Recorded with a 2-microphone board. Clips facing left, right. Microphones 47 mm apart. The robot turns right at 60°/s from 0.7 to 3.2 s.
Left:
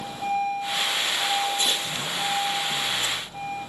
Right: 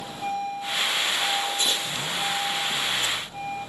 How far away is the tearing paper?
About 1.3 m.